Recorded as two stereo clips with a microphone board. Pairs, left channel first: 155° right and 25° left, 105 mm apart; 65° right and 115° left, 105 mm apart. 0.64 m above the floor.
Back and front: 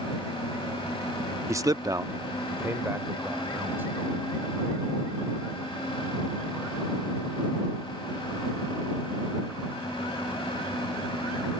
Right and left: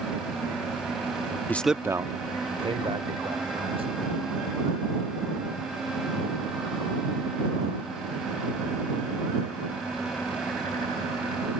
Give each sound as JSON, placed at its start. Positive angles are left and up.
{"t": 1.5, "sound": "a man speaking", "azimuth_deg": -15}